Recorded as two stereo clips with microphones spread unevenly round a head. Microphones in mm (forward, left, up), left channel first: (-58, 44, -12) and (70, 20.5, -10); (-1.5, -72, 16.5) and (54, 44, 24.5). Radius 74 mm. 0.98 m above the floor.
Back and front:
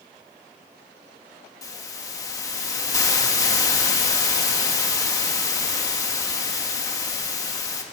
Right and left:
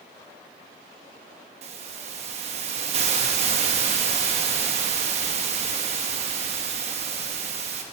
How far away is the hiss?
About 1.3 m.